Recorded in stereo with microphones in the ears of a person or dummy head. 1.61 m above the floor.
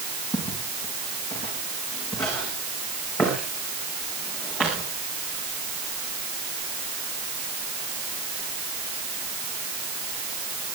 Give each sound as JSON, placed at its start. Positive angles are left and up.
{"t": 0.3, "sound": "footsteps", "side_deg": 30, "distance_m": 4.5}